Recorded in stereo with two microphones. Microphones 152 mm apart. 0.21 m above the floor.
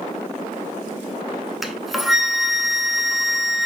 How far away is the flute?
About 0.6 m.